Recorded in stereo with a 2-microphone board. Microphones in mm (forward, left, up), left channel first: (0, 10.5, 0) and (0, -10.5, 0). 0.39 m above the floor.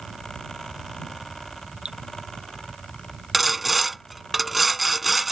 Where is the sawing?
10° right (ahead or behind).